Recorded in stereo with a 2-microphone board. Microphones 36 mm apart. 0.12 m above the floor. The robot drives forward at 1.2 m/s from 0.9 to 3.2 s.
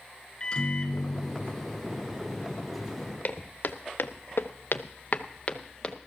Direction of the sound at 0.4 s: 25° left (ahead or behind).